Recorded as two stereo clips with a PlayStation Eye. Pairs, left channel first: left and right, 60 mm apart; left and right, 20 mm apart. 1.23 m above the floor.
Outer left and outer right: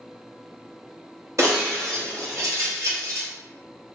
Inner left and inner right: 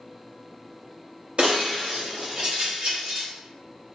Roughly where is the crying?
No crying in this recording.